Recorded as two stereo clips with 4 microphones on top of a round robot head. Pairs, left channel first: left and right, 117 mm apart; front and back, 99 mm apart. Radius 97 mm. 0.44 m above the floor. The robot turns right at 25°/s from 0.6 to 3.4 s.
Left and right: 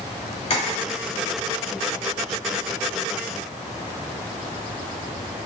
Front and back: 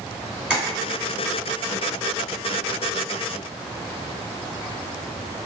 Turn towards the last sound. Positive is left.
turn(degrees=165)